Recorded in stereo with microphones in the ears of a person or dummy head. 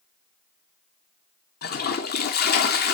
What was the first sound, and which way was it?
A toilet flushing, 55° left (ahead or behind).